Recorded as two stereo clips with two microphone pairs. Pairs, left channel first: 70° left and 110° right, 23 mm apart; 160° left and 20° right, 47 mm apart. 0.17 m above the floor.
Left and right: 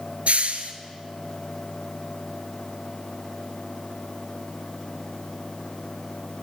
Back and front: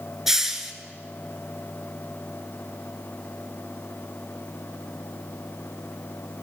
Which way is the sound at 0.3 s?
100° right.